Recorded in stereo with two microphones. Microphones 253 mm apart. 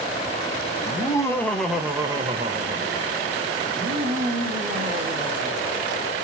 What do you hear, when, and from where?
0.8 s laughter: 20° left (ahead or behind), 1.1 m; by 6.1 s 55° right (ahead or behind), 2.5 m